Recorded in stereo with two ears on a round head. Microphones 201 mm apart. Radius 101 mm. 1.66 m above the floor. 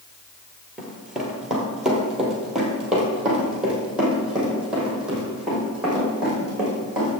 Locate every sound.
0.8 s running footsteps: centre (ahead or behind), 2 m; by 7.1 s 5° right (ahead or behind), 6.5 m